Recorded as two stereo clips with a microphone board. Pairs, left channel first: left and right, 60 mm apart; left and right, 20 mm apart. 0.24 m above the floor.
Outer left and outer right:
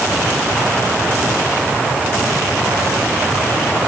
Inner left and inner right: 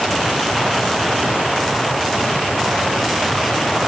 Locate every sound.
Only background noise.